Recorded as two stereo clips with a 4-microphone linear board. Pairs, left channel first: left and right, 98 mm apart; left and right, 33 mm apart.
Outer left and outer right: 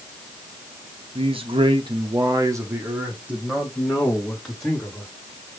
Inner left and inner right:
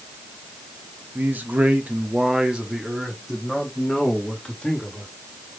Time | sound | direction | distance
1.1 | a man speaking | 75° right (ahead or behind) | 1.2 m